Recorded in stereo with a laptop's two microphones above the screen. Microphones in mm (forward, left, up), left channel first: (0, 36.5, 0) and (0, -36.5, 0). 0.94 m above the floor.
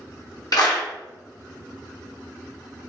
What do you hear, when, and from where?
0.5 s a clap: 55° left (ahead or behind), 1.1 m